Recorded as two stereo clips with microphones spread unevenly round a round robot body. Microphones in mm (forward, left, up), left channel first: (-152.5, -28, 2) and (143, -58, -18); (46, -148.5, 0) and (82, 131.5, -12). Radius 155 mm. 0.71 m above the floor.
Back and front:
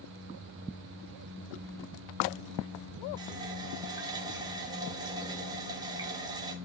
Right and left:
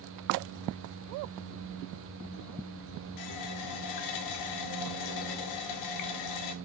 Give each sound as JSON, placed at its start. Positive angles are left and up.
{"t": 3.2, "sound": "a running tap", "azimuth_deg": -80, "distance_m": 0.5}